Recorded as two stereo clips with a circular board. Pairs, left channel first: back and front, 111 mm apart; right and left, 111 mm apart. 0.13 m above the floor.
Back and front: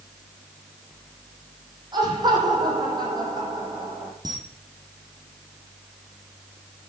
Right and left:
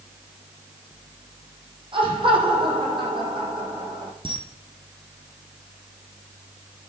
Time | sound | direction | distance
1.9 | laughter | 50° left | 6 m
4.2 | a camera shutter | 50° left | 3.5 m